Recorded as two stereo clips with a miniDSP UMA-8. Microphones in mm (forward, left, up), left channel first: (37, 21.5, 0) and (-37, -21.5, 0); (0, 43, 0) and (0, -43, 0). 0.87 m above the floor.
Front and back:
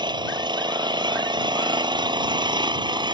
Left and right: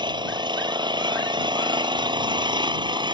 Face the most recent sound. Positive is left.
turn(degrees=-120)